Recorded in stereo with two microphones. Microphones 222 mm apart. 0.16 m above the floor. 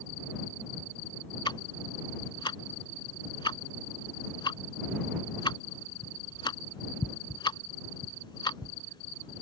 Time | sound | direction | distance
1.4 | ticking | 20° left (ahead or behind) | ?